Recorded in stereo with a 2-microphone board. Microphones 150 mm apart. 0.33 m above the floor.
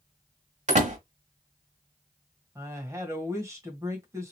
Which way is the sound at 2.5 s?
20° right (ahead or behind).